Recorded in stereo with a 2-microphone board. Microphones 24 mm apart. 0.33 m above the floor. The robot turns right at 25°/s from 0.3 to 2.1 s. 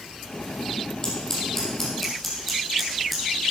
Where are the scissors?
35° left (ahead or behind), 3.5 m; by 3.2 s 5° left (ahead or behind), 3.5 m.